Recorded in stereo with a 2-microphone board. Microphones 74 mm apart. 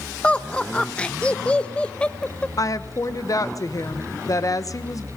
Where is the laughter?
15° left (ahead or behind), 1.1 m.